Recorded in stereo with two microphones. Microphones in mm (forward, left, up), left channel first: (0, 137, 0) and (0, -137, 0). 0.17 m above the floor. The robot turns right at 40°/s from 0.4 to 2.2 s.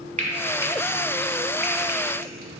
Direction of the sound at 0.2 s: 25° right (ahead or behind).